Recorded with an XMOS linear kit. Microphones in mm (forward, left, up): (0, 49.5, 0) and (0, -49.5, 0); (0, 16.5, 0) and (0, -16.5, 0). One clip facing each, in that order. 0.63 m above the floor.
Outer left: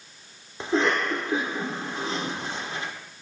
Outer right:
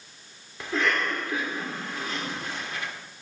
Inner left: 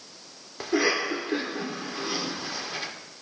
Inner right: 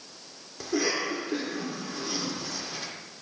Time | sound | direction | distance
0.6 | a cough | 30° left (ahead or behind) | 1.5 m